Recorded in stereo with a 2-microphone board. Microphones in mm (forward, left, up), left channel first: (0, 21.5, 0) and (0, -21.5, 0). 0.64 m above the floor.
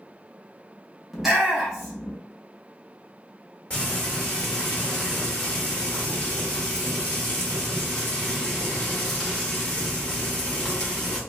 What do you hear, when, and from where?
1.1 s a shout: 10° right (ahead or behind), 0.9 m
3.7 s frying: 25° left (ahead or behind), 1.1 m